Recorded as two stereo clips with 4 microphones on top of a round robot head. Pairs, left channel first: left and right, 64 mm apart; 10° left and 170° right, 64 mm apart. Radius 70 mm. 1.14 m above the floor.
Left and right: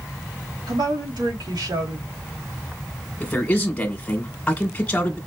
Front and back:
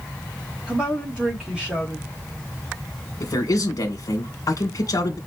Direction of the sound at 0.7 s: 95° right.